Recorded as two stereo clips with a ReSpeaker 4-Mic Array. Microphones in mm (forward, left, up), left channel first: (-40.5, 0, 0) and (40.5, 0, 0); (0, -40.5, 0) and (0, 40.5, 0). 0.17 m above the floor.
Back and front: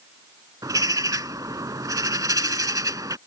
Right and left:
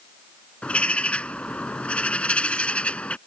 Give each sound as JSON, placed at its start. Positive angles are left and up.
{"t": 0.6, "sound": "a bird", "azimuth_deg": -20}